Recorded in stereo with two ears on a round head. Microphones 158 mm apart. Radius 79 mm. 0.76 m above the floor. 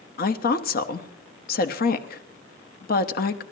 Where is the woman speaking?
55° left (ahead or behind), 1.0 m.